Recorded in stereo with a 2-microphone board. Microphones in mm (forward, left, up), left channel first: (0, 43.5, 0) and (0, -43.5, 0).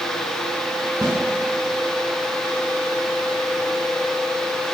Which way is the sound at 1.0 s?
50° right (ahead or behind).